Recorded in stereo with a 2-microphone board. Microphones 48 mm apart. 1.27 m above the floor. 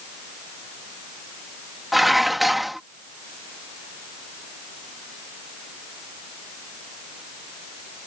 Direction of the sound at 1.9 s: Centre (ahead or behind).